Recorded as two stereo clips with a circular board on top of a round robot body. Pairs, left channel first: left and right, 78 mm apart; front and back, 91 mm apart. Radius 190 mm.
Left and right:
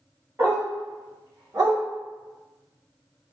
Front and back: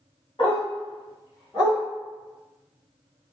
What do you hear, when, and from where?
0.4 s a dog barking: 30° right, 1.7 m; by 1.8 s 50° right, 2.5 m